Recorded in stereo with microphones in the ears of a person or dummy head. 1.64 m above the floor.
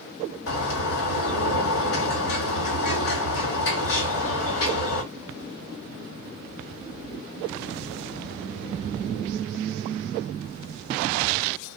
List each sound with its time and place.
0.5 s a bird: 60° left (ahead or behind), 2 m